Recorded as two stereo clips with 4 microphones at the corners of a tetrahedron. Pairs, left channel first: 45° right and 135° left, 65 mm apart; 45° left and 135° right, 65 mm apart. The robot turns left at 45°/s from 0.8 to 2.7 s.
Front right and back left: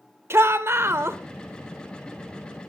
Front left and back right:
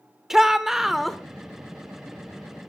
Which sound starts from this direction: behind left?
A shout, at 0.3 s.